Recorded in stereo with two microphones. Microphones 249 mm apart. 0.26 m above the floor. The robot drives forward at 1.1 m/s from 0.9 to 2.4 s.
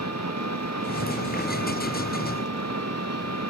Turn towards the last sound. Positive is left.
turn(degrees=-75)  # may be behind; listen again after turning